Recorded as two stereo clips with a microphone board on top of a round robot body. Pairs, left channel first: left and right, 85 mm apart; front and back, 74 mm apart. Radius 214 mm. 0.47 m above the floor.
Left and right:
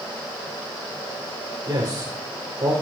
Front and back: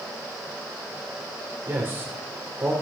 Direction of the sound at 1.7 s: 130° right.